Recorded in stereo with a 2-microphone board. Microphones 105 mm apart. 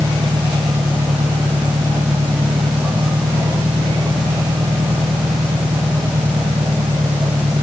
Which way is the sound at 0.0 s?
40° right (ahead or behind).